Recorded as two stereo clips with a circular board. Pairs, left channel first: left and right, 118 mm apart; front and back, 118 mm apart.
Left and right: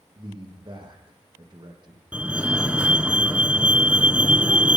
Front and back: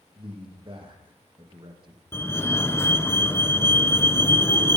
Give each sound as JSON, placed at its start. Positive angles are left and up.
{"t": 0.1, "sound": "a man speaking", "azimuth_deg": -135, "distance_m": 6.5}
{"t": 2.1, "sound": "a fire alarm", "azimuth_deg": -25, "distance_m": 2.5}